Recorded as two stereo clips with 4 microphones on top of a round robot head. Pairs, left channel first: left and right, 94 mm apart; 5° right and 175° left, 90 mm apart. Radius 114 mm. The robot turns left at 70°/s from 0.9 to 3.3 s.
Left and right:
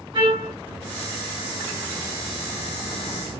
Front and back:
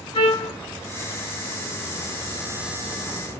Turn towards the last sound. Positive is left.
turn(degrees=145)